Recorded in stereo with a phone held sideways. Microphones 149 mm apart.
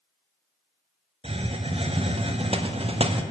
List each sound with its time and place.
1.2 s a hiss: 40° right (ahead or behind), 0.5 m